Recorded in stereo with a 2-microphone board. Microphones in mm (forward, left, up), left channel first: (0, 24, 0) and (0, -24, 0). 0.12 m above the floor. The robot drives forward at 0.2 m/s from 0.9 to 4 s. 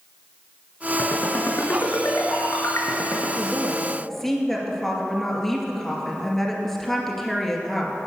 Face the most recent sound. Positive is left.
turn(degrees=5)  # may be behind; listen again after turning